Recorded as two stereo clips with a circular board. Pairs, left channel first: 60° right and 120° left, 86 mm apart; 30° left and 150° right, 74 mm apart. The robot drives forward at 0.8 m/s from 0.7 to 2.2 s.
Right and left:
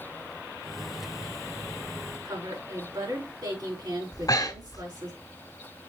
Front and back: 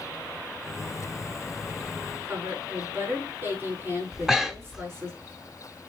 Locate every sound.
2.2 s a woman speaking: 155° left, 5 m
4.1 s breathing: 70° right, 1.1 m